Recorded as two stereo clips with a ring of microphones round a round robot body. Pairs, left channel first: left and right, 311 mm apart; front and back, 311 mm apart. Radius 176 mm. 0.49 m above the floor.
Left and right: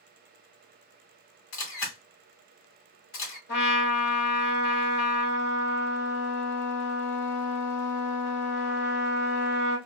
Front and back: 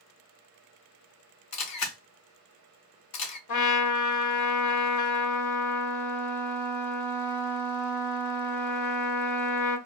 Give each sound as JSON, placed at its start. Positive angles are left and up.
{"t": 1.5, "sound": "a camera shutter", "azimuth_deg": 40, "distance_m": 0.9}
{"t": 3.5, "sound": "a trumpet", "azimuth_deg": 35, "distance_m": 1.0}